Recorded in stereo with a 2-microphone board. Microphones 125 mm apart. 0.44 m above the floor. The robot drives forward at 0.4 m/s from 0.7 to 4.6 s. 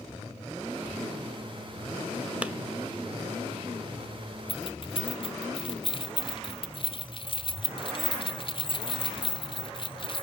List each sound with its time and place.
2.4 s a clap: 10° right (ahead or behind), 0.8 m
4.5 s keys jangling: 45° left (ahead or behind), 0.8 m